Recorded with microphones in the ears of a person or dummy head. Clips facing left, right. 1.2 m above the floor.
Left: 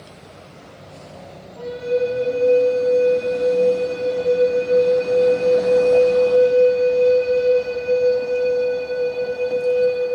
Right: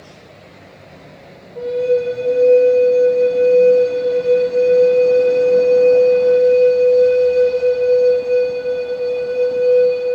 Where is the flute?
65° right (ahead or behind), 3 m.